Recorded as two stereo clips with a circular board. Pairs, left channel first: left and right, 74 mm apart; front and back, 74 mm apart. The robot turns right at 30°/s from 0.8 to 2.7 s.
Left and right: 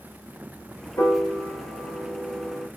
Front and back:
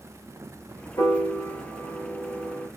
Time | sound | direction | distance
1.0 | a piano | 25° left | 9 m